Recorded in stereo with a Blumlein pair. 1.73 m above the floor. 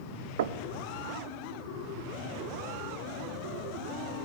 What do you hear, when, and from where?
0.4 s knocking: 60° right, 0.9 m